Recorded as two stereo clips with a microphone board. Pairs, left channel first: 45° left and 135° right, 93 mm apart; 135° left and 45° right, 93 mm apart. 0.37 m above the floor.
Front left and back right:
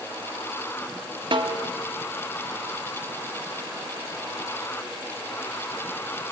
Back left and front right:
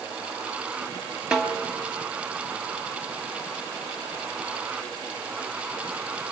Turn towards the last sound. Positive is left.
turn(degrees=-125)